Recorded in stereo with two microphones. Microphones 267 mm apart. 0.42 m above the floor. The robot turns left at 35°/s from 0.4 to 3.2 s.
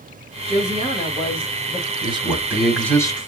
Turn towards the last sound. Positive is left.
turn(degrees=160)